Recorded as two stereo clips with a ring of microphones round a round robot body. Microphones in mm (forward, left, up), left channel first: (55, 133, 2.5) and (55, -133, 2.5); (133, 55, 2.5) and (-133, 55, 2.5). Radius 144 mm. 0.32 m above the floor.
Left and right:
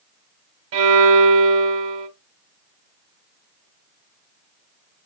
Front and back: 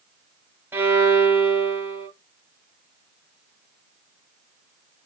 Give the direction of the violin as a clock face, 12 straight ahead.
3 o'clock.